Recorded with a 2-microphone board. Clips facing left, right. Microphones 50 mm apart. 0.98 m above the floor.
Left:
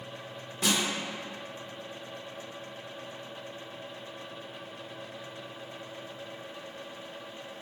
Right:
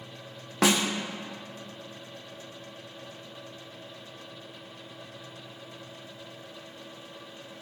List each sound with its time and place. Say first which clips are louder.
0.6 s a snare drum: right 5 dB; 85° right, 0.9 m